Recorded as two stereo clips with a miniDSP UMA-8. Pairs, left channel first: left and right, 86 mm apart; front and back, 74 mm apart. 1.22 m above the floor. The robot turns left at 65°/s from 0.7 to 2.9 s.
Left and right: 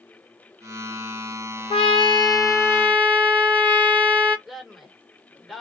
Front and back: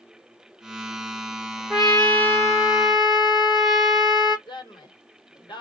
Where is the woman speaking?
5° right, 1.3 m.